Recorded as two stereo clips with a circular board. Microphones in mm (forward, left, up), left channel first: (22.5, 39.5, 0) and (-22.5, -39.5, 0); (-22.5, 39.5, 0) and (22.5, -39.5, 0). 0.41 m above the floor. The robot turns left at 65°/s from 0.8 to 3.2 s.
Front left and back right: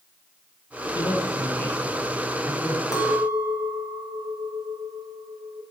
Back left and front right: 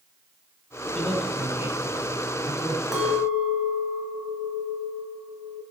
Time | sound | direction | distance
0.9 | a man speaking | 40° left | 3 m
2.9 | a clink | 25° left | 1.7 m